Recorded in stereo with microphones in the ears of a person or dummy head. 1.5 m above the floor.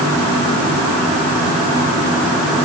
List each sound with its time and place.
Only background noise.